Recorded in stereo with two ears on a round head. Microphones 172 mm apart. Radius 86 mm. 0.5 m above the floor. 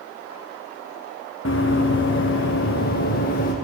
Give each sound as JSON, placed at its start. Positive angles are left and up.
{"t": 1.4, "sound": "running footsteps", "side_deg": 70, "distance_m": 2.0}